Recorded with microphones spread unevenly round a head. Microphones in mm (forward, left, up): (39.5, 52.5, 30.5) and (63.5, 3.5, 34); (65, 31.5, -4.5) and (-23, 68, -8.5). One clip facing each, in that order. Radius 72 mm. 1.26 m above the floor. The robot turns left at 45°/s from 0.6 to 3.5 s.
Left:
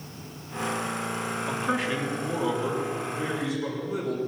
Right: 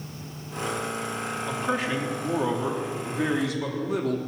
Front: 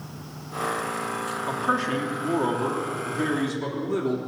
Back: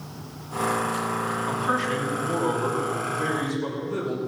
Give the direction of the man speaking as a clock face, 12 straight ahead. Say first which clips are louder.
Right 1 dB, front 2 dB; 11 o'clock.